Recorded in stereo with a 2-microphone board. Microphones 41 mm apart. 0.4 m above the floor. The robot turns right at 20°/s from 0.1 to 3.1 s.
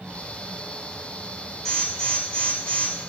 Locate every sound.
1.6 s an alarm: 10° left (ahead or behind), 3 m; by 2.9 s 30° left (ahead or behind), 3 m